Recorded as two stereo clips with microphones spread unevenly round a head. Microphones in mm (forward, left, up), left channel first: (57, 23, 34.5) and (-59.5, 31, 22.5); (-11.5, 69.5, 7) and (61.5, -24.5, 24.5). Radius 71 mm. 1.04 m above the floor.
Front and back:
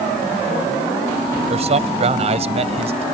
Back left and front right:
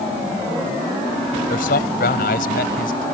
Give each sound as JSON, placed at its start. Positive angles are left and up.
{"t": 1.5, "sound": "a man speaking", "azimuth_deg": 145}